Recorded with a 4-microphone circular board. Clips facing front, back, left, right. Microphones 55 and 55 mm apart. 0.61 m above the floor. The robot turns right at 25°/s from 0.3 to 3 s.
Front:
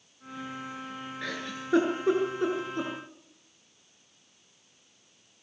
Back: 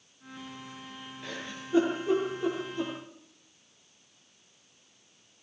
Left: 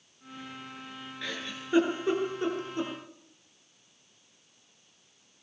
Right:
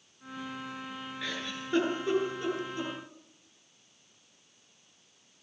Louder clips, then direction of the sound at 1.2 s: Front 3 dB, even; 5° right.